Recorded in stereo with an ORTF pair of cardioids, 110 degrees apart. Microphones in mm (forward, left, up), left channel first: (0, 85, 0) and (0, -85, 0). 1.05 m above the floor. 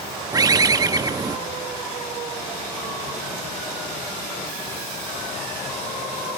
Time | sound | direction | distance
0.3 | a bird | 20° right | 0.6 m